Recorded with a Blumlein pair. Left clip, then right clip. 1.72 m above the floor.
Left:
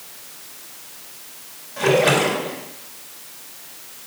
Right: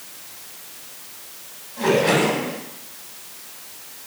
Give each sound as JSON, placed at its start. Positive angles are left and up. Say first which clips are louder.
{"t": 1.8, "sound": "a splash", "louder": "left 2 dB", "azimuth_deg": 25, "distance_m": 3.5}